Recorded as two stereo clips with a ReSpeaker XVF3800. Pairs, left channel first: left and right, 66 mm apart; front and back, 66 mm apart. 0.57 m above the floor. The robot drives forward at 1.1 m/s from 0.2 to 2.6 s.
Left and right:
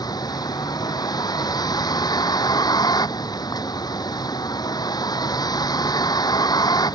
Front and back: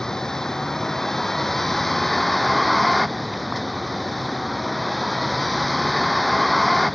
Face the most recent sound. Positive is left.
turn(degrees=90)